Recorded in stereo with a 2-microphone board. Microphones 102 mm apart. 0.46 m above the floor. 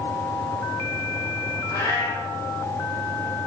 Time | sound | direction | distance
1.7 | a cat meowing | 25° left (ahead or behind) | 5.5 m